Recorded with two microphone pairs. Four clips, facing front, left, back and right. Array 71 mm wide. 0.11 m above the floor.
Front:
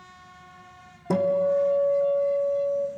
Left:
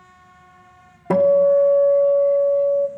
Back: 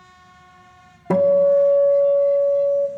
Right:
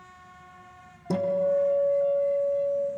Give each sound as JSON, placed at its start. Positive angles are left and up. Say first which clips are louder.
{"t": 1.1, "sound": "a guitar", "louder": "left 10 dB, back 8 dB", "azimuth_deg": 115, "distance_m": 1.1}